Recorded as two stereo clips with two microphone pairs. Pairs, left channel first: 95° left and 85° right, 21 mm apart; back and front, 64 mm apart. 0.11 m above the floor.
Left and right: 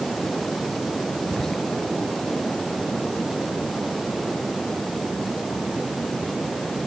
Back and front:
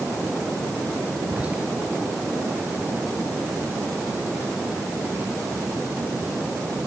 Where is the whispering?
50° left, 1.3 m.